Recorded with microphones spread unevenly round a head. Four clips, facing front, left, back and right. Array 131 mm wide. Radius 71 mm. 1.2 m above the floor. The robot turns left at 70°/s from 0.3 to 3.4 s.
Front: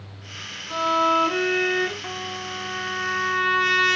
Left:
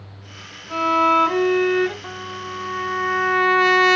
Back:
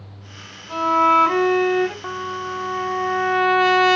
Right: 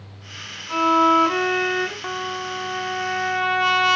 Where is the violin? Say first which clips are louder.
Right 1 dB, back 4 dB; 130° right, 3 m; by 1.9 s 140° left, 3 m.